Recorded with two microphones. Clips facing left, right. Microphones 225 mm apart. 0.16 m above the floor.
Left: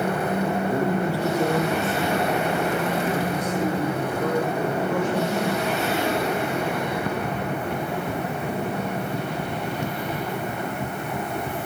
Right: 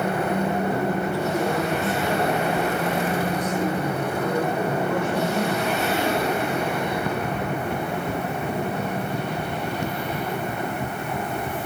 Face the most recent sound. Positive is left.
turn(degrees=50)  # may be behind; listen again after turning